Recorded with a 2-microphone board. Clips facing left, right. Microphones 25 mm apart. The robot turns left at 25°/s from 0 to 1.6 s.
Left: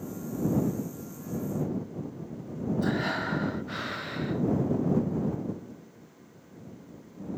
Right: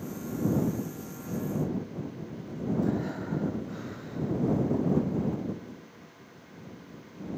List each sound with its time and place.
2.8 s breathing: 75° left (ahead or behind)